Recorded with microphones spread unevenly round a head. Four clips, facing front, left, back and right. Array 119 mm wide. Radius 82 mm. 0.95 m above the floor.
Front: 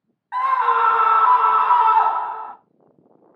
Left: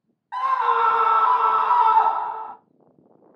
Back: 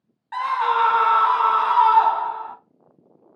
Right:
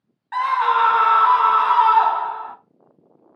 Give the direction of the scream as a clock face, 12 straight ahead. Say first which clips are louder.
Right 2 dB, front 3 dB; 2 o'clock.